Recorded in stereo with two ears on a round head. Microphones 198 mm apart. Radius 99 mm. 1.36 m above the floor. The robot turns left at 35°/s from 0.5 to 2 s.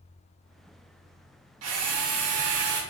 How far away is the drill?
About 1.3 m.